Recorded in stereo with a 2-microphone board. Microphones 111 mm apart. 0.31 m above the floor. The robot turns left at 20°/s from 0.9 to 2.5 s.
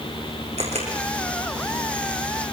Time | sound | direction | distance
0.6 | a camera shutter | 75° right (ahead or behind) | 6.5 m